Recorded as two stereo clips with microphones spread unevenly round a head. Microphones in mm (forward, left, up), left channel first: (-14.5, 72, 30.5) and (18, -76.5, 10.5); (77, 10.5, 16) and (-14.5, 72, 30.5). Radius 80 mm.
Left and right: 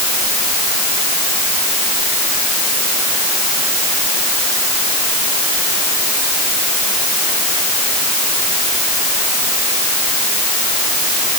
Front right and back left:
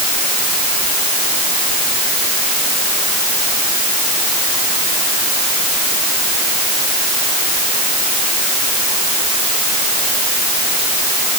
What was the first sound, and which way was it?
Only background noise.